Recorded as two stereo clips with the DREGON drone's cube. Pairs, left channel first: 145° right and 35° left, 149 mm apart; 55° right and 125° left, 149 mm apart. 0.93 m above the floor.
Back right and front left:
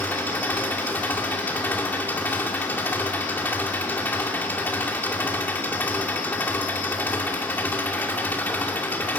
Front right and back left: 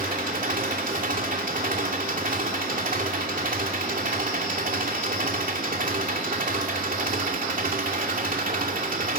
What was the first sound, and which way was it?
An engine running, 140° left.